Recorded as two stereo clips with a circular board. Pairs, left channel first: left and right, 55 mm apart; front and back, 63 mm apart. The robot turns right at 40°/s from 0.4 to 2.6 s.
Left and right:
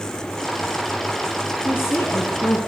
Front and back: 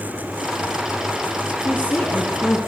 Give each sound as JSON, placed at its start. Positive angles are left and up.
{"t": 1.6, "sound": "a woman speaking", "azimuth_deg": 50, "distance_m": 3.5}